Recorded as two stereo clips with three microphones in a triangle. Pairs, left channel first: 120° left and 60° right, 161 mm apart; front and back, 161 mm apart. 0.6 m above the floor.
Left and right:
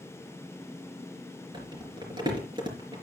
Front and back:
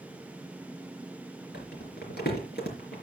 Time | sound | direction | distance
1.5 | crumpling | straight ahead | 4 m